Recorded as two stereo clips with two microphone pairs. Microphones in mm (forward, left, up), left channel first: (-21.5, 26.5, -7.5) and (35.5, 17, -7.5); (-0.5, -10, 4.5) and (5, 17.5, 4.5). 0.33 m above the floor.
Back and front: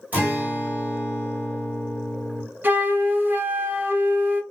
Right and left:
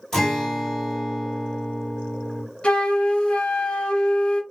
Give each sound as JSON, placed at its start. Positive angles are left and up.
{"t": 0.1, "sound": "a guitar", "azimuth_deg": -35, "distance_m": 1.8}
{"t": 2.6, "sound": "a flute", "azimuth_deg": -55, "distance_m": 0.7}